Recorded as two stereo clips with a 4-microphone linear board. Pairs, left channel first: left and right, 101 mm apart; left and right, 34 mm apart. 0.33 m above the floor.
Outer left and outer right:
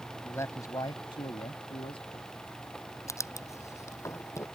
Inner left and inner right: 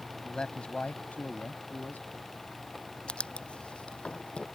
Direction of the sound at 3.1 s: 30° left (ahead or behind).